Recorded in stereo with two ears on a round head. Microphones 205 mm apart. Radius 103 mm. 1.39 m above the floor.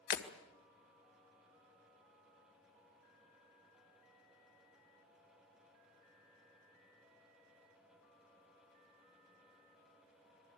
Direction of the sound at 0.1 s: 50° left (ahead or behind).